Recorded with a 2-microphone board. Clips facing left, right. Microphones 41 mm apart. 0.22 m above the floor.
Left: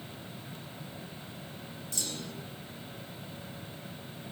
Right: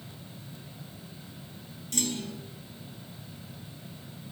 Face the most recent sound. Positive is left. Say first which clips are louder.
# right 7 dB
turn(degrees=-65)  # may be behind; listen again after turning